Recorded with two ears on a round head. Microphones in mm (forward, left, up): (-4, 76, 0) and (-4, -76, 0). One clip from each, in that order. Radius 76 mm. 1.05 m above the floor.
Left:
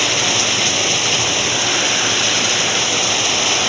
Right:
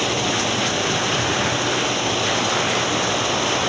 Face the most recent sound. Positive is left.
turn(degrees=50)  # may be behind; listen again after turning